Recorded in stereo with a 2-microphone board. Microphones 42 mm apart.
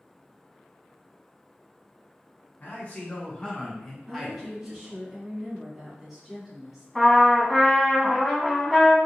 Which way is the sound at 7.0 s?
5° left (ahead or behind).